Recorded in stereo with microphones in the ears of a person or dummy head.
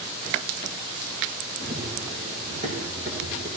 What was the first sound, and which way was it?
Running footsteps, 45° right (ahead or behind).